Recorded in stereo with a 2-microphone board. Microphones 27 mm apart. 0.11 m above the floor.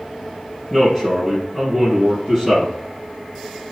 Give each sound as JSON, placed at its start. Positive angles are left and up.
{"t": 0.7, "sound": "a man speaking", "side_deg": -10, "distance_m": 1.7}